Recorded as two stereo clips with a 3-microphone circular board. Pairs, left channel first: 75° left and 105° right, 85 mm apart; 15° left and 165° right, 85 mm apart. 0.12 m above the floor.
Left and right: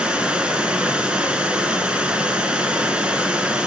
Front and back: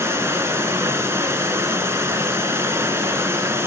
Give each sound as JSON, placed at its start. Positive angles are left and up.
{"t": 0.0, "sound": "running water", "azimuth_deg": -170, "distance_m": 1.5}